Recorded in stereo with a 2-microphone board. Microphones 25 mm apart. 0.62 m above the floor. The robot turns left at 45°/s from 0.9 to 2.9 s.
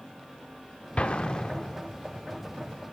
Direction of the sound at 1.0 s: 50° left (ahead or behind).